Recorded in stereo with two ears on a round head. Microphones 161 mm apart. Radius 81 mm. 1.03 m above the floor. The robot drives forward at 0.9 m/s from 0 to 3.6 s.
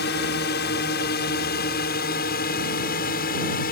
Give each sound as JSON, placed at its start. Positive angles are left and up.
{"t": 0.0, "sound": "a drone", "side_deg": 60}